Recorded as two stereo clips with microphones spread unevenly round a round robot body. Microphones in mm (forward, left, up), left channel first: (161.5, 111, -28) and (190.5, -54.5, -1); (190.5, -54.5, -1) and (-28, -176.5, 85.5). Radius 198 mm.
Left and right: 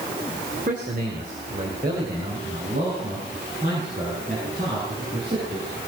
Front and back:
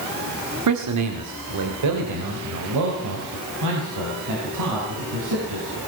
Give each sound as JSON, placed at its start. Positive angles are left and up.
{"t": 0.7, "sound": "a man speaking", "azimuth_deg": -145, "distance_m": 2.0}